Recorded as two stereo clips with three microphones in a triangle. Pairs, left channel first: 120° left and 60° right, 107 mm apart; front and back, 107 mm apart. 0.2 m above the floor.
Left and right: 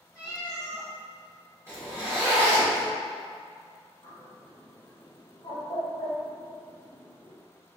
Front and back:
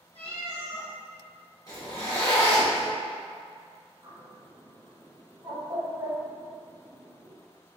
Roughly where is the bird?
Behind left.